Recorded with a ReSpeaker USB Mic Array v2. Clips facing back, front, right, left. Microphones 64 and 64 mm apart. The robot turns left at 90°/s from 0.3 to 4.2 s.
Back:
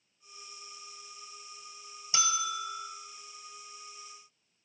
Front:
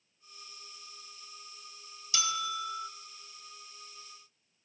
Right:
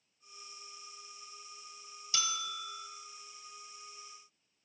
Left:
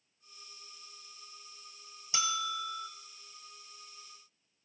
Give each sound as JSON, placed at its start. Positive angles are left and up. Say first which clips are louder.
{"t": 2.1, "sound": "a bell", "louder": "back 2 dB, left 4 dB", "azimuth_deg": 140, "distance_m": 1.1}